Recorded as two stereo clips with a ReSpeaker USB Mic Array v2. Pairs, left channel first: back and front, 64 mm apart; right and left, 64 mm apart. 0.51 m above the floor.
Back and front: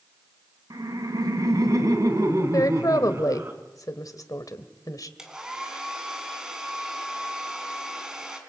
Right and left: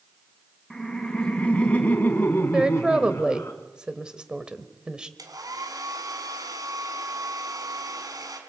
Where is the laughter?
10° right, 3.5 m; by 3.5 s 45° right, 4.5 m.